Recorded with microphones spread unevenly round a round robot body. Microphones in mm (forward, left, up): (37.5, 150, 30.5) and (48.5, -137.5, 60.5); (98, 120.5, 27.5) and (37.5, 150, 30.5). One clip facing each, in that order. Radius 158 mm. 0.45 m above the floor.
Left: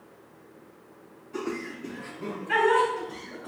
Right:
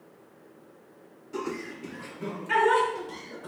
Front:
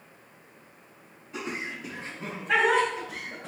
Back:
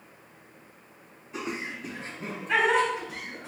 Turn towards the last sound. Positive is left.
turn(degrees=-80)